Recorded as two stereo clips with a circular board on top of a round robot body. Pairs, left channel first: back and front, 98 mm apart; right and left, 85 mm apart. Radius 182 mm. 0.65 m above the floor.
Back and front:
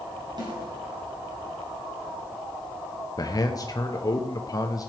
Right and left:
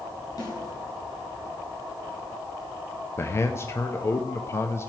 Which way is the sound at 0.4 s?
45° right.